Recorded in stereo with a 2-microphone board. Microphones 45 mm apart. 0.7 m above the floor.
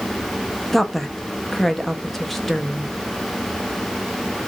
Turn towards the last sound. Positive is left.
turn(degrees=0)  # may be behind; listen again after turning